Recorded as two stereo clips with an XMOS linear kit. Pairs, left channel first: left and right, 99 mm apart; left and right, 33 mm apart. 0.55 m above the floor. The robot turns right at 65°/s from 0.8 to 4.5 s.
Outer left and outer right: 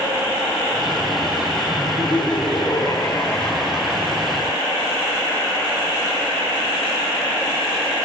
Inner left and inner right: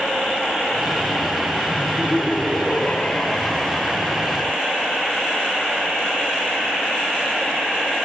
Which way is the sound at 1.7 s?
50° left.